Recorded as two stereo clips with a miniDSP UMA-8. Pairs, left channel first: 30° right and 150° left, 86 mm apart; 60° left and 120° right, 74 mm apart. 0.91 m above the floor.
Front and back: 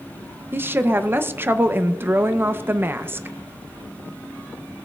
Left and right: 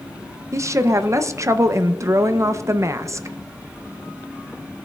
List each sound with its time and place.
0.5 s a woman speaking: 155° right, 0.5 m